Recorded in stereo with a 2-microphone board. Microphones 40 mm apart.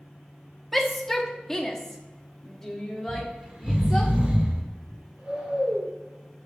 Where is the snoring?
30° right (ahead or behind), 2.5 m.